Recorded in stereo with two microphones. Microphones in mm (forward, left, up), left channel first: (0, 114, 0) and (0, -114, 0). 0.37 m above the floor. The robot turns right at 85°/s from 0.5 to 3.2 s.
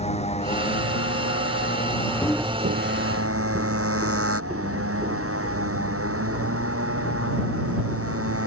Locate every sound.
0.0 s a motorcycle: 30° left; by 8.5 s 105° right
2.2 s footsteps: 25° left (ahead or behind); by 8.4 s 20° right (ahead or behind)